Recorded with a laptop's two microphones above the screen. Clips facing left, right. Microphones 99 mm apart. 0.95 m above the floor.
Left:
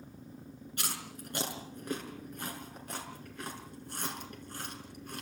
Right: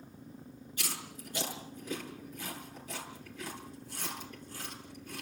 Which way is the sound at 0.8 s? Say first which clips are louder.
Left 1 dB; 65° left (ahead or behind).